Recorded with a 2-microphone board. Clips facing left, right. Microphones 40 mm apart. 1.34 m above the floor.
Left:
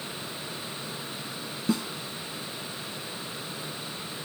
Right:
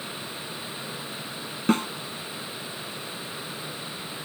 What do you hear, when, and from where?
1.7 s a snare drum: 50° right (ahead or behind)